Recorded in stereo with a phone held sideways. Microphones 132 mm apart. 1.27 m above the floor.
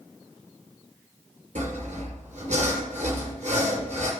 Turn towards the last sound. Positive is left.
turn(degrees=-70)  # may be behind; listen again after turning